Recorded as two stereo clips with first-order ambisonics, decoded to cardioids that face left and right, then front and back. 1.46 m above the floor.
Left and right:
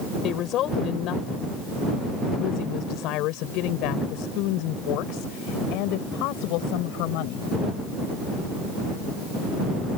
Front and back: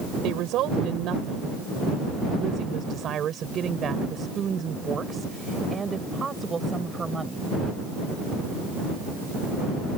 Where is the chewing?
No chewing in this recording.